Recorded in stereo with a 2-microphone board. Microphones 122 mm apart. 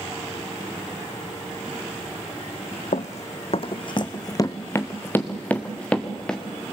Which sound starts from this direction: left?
Running footsteps, at 2.9 s.